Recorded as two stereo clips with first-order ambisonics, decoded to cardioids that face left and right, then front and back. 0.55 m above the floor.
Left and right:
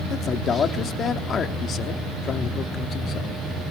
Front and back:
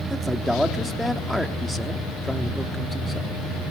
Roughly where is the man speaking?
Left.